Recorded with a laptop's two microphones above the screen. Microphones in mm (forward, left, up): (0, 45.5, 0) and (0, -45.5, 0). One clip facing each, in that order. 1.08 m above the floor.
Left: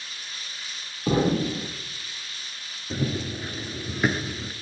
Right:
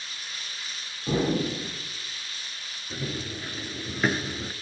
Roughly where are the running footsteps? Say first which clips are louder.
Left 6 dB; left.